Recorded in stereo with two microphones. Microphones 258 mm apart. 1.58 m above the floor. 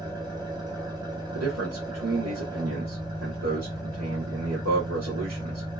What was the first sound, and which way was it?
An engine running, 15° right (ahead or behind).